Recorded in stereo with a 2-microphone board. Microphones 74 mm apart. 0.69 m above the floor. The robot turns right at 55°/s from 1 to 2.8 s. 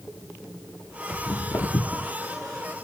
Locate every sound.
1.1 s footsteps: 60° left (ahead or behind), 1.3 m; by 2.1 s 10° right (ahead or behind), 0.7 m